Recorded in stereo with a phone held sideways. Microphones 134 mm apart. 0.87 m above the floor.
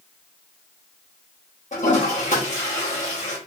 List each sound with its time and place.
1.7 s a toilet flushing: 60° left (ahead or behind), 1.4 m